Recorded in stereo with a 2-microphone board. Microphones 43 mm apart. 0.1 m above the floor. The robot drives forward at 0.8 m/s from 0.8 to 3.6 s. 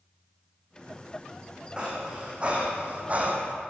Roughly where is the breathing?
Right.